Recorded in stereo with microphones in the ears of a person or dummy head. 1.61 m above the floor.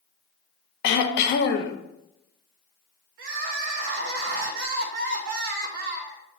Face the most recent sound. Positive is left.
turn(degrees=-60)  # may be behind; listen again after turning